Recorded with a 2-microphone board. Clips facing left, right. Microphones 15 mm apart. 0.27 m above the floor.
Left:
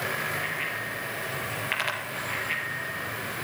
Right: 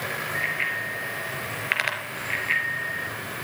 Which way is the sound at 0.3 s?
30° right (ahead or behind).